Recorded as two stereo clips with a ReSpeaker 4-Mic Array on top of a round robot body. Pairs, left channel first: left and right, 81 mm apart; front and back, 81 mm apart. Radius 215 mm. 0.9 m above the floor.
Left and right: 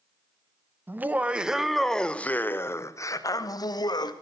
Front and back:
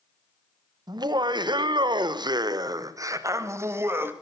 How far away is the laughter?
About 1.3 m.